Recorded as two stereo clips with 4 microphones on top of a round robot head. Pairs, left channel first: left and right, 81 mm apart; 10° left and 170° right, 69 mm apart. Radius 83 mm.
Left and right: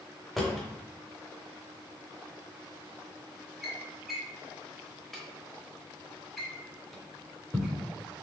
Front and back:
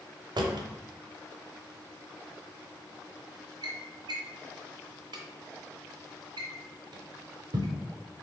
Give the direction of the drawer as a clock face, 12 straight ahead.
6 o'clock.